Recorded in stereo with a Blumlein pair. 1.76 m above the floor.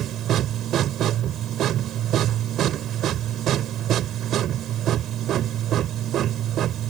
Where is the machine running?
30° right.